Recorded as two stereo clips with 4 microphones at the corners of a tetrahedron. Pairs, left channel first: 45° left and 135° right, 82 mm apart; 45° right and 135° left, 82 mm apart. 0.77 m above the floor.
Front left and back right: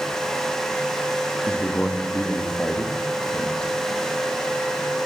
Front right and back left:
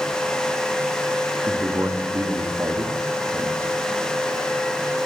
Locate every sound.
1.5 s a man speaking: 115° left, 1.3 m